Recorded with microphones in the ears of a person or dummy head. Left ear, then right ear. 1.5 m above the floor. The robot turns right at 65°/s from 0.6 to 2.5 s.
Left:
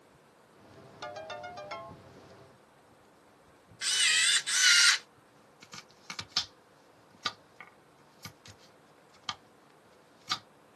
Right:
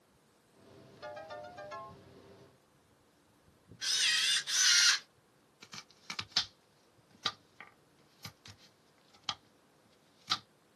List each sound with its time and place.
1.0 s a ringtone: 50° left, 1.8 m; by 2.0 s 115° left, 1.8 m
3.8 s a camera shutter: 25° left (ahead or behind), 1.1 m
5.6 s chopping: 5° right (ahead or behind), 0.6 m